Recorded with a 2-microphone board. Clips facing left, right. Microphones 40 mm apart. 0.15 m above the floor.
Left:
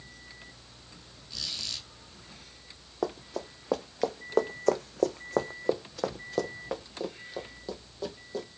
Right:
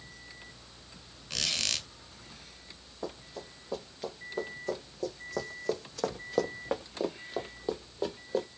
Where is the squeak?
65° right (ahead or behind), 0.6 m.